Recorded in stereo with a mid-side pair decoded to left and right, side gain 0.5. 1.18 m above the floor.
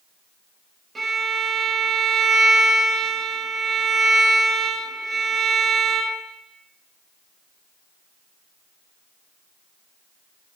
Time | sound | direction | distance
0.9 | a violin | 30° right | 0.9 m